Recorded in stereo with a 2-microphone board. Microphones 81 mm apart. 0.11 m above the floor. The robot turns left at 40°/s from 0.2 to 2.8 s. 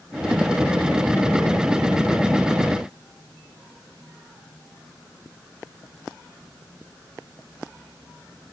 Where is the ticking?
No ticking in this recording.